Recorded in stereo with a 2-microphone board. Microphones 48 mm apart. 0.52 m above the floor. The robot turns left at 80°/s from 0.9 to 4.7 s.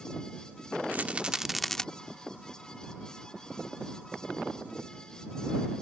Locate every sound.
0.9 s a rattle: 125° right; by 1.9 s 155° left